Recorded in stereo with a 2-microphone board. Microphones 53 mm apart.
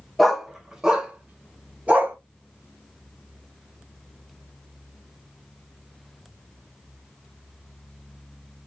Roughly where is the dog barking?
Centre.